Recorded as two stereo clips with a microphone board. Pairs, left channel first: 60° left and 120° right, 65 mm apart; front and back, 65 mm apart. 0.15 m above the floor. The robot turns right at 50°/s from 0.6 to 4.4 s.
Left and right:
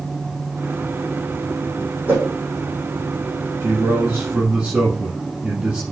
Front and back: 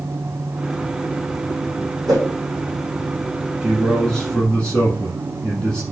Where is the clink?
I don't hear a clink.